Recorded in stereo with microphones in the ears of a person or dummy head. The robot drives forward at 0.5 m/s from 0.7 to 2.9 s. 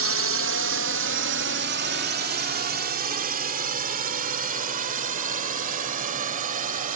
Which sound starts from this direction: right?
A drone, at 0.0 s.